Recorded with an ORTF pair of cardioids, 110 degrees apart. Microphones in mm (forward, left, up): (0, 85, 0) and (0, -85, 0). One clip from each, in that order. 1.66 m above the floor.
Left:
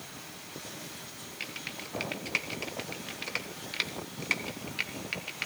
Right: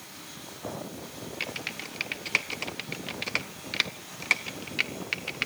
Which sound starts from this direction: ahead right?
Typing on a keyboard, at 1.4 s.